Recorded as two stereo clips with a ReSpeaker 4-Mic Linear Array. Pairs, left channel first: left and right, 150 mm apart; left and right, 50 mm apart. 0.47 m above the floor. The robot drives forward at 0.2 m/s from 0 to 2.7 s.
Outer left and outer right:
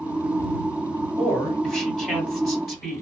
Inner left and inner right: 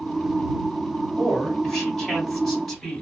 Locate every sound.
1.2 s a woman speaking: centre (ahead or behind), 1.8 m